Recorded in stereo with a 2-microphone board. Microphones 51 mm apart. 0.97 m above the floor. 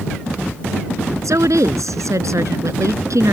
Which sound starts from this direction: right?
A woman speaking, at 1.2 s.